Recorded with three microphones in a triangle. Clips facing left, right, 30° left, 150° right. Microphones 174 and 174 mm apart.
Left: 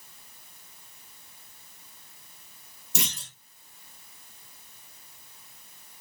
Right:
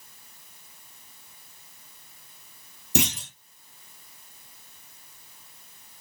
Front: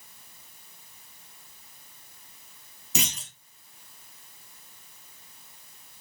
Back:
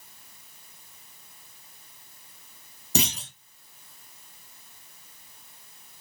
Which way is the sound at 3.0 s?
95° right.